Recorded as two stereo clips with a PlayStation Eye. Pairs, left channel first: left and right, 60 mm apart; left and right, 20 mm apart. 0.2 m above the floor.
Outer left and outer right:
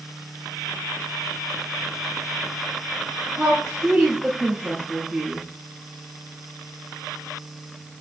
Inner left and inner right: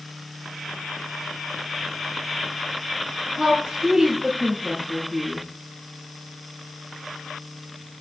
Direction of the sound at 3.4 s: 15° right (ahead or behind).